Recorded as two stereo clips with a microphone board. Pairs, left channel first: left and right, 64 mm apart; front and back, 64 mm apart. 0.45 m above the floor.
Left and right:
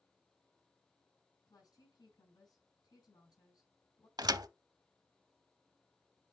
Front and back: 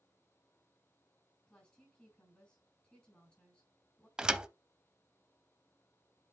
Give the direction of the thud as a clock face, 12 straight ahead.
3 o'clock.